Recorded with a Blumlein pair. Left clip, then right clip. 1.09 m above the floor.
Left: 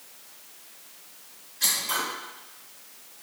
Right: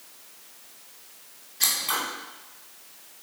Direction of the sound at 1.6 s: 50° right.